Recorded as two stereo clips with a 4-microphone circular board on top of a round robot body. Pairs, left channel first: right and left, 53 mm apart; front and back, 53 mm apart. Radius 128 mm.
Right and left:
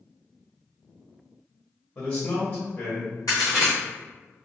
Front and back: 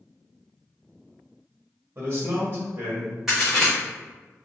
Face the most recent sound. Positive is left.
turn(degrees=-95)